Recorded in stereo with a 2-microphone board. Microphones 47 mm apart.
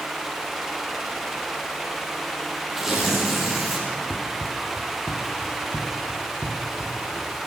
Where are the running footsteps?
20° left (ahead or behind), 1.2 m; by 7.3 s 70° left (ahead or behind), 2.5 m.